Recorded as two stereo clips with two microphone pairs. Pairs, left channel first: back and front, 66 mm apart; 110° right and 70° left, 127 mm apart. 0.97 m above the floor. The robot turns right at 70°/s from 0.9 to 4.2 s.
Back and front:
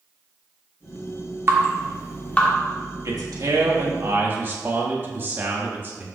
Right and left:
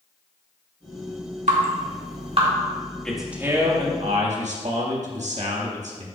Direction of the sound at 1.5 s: 50° left.